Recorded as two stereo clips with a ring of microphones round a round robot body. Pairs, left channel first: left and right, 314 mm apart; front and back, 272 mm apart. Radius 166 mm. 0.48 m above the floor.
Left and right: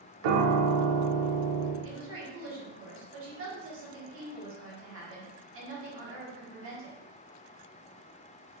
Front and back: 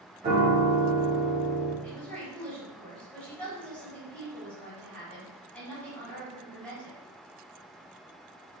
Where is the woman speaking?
85° right, 1.1 m.